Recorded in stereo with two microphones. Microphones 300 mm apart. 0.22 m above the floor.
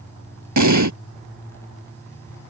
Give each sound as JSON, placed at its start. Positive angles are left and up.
{"t": 0.6, "sound": "an explosion", "side_deg": -75}